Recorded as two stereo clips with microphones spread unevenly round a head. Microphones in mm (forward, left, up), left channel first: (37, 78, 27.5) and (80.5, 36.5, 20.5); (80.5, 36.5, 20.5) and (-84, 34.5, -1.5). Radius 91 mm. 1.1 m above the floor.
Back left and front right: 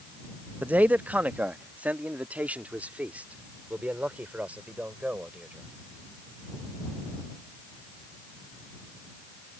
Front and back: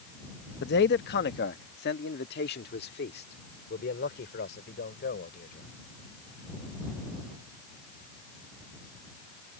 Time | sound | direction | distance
0.6 | a man speaking | 20° left | ?